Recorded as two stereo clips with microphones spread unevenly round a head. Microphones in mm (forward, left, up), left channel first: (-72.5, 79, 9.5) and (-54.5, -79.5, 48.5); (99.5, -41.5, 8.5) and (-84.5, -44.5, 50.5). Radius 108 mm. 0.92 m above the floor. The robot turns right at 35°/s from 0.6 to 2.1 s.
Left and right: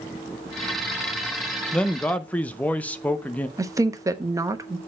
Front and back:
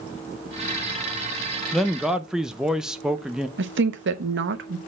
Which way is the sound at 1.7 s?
55° left.